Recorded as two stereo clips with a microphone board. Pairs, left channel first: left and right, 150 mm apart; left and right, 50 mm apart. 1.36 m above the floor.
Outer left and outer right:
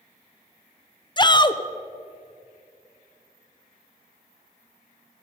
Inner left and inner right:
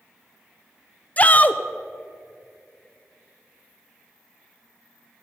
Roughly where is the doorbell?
No doorbell in this recording.